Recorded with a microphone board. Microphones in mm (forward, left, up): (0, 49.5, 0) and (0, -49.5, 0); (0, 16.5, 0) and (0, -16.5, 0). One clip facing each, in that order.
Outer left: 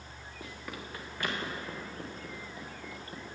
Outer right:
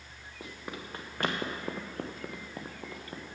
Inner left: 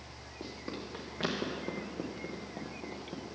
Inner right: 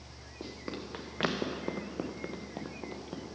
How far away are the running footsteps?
About 1.8 m.